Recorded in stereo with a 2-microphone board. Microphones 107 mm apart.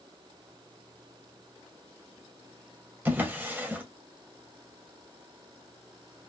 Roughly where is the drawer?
Centre.